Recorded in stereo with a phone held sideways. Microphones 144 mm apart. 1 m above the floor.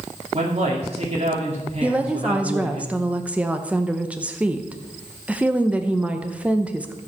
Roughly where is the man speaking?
Right.